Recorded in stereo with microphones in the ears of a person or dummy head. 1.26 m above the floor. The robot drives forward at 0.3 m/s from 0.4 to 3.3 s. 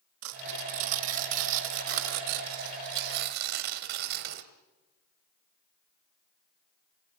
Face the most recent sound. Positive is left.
turn(degrees=-55)  # may be behind; listen again after turning